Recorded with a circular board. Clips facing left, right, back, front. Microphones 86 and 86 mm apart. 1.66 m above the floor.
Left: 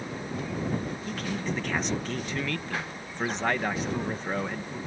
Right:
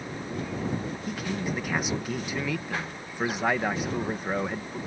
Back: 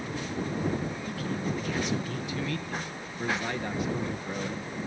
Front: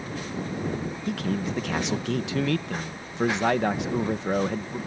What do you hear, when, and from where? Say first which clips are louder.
1.1 s a man speaking: right 2 dB, front 7 dB; 10° right